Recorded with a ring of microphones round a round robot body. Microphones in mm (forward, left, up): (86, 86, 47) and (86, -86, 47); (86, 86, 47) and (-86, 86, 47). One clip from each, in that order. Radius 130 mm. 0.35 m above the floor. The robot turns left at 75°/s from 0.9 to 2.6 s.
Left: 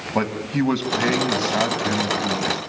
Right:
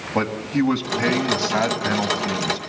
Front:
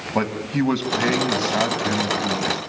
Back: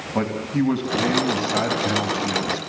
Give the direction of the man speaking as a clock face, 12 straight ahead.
12 o'clock.